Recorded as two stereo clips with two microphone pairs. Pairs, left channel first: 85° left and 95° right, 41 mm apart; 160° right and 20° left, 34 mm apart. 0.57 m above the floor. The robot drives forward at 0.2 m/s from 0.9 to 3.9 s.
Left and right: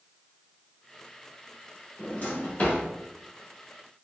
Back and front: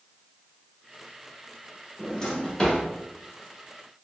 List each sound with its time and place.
2.0 s a drawer: 130° left, 1.0 m; by 2.8 s 135° left, 1.1 m